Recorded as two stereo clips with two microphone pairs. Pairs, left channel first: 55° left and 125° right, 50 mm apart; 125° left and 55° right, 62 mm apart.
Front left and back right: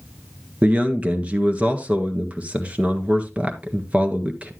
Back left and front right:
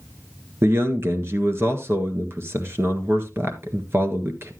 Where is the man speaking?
80° right, 1.6 m.